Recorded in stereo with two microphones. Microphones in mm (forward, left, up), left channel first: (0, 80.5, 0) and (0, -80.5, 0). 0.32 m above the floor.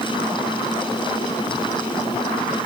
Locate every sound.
Only background noise.